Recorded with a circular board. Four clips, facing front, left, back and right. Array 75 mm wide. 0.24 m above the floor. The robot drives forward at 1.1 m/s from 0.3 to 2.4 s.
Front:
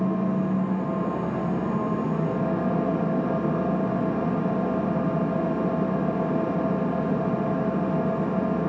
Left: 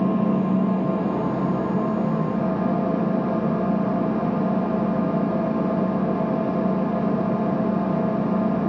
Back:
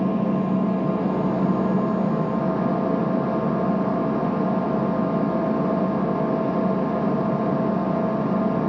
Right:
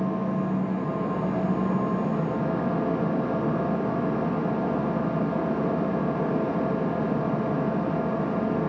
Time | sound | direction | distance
0.0 | an engine running | 135° left | 2.5 m